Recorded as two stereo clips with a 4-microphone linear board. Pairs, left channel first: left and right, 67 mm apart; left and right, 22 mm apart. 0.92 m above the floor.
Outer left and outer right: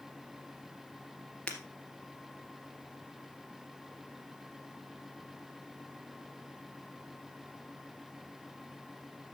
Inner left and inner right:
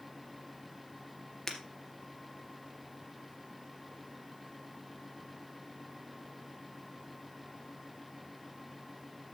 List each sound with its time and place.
1.5 s breaking glass: 20° left (ahead or behind), 2 m